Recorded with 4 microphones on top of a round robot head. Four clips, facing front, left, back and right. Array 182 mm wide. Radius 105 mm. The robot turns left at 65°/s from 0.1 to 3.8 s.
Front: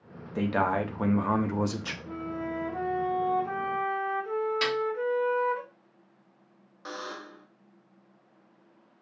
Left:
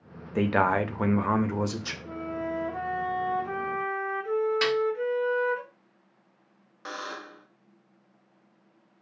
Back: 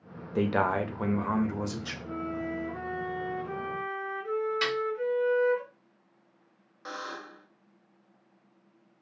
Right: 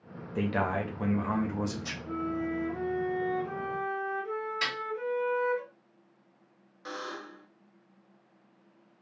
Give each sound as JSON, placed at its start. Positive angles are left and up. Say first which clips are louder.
{"t": 0.3, "sound": "a man speaking", "louder": "left 6 dB, even", "azimuth_deg": 125, "distance_m": 0.5}
{"t": 2.0, "sound": "a flute", "louder": "right 1 dB, back 1 dB", "azimuth_deg": 125, "distance_m": 1.3}
{"t": 4.6, "sound": "a snare drum", "louder": "left 10 dB, front 2 dB", "azimuth_deg": 60, "distance_m": 1.7}
{"t": 6.8, "sound": "a buzzer", "louder": "left 2 dB, even", "azimuth_deg": 80, "distance_m": 0.7}